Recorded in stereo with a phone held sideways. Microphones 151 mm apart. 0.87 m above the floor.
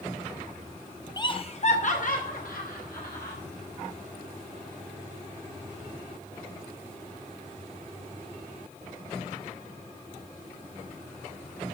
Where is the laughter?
25° left (ahead or behind), 0.6 m; by 3.4 s 75° left (ahead or behind), 1.8 m.